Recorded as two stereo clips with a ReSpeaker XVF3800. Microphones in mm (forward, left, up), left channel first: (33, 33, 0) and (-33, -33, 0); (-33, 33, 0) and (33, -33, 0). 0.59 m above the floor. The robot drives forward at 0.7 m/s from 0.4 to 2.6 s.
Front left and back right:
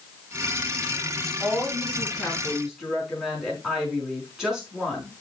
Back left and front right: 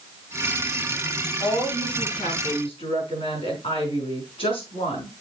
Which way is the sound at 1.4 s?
135° left.